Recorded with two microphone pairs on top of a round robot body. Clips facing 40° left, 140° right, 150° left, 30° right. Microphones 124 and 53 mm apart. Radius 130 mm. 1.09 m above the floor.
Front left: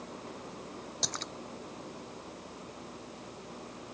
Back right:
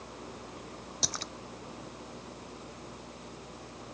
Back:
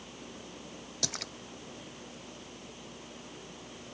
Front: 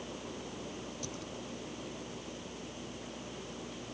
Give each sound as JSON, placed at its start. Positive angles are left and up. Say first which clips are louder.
{"t": 1.0, "sound": "a splash", "louder": "back right 1 dB, back 2 dB", "azimuth_deg": 135}